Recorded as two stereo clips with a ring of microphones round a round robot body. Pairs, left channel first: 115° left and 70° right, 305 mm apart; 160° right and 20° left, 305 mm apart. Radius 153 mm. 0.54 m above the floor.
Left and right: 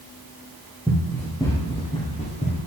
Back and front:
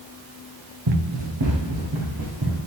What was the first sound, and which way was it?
Running footsteps, 25° left.